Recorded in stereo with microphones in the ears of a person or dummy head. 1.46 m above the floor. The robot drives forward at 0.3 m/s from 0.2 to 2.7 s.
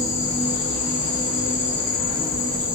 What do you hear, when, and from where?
0.0 s an insect: 85° left, 1.0 m; by 2.8 s 55° left (ahead or behind), 1.3 m